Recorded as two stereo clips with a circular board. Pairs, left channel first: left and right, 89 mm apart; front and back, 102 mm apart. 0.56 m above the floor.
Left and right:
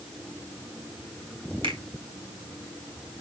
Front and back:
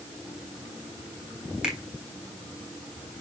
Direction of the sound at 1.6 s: 95° right.